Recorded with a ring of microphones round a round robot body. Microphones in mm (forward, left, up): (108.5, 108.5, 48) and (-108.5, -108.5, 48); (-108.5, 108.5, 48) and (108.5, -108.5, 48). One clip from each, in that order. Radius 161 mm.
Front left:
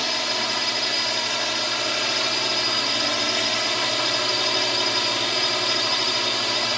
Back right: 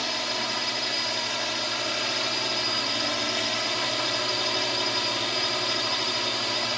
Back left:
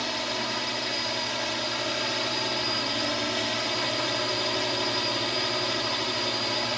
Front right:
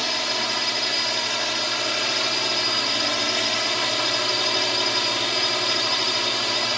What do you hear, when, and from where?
0.0 s a drone: 25° right